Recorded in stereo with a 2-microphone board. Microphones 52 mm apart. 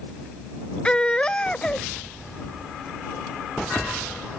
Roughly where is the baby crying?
Left.